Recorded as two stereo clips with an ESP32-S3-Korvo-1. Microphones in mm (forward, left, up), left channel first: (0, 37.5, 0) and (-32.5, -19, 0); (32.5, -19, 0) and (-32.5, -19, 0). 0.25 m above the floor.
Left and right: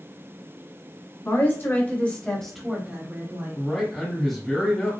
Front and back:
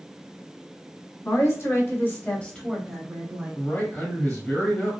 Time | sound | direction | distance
1.2 | a woman speaking | 25° left | 1.9 m
3.5 | a man speaking | 10° right | 1.6 m